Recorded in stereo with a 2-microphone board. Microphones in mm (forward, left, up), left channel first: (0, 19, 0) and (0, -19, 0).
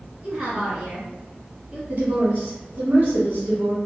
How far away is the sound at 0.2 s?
About 1.0 m.